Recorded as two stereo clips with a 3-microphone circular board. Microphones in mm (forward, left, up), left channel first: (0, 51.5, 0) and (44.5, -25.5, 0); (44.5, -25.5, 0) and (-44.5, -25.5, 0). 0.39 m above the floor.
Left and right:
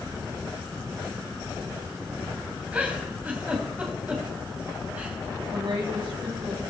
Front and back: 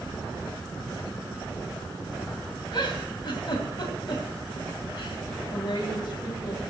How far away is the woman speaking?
About 8 m.